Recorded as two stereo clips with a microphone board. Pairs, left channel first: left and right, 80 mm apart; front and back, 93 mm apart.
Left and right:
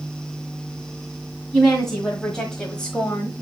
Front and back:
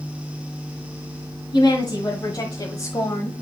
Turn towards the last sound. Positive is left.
turn(degrees=30)